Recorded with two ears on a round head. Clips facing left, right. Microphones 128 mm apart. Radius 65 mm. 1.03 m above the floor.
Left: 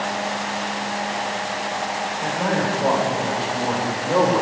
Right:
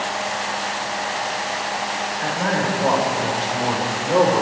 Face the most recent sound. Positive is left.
turn(degrees=-10)  # may be behind; listen again after turning